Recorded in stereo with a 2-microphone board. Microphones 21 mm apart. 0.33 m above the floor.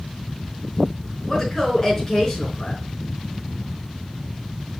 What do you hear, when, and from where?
1.3 s a woman speaking: 15° left (ahead or behind), 4.5 m